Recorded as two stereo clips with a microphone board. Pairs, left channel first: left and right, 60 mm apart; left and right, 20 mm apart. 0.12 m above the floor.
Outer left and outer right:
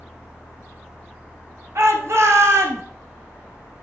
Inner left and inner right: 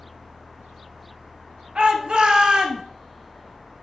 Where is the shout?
55° right (ahead or behind), 1.9 m.